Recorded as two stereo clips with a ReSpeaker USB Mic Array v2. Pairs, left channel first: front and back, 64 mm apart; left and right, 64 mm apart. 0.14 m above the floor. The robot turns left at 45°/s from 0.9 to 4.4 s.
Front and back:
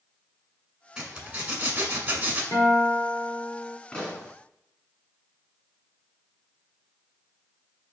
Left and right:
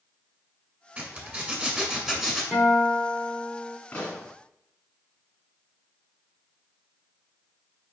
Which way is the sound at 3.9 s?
60° left.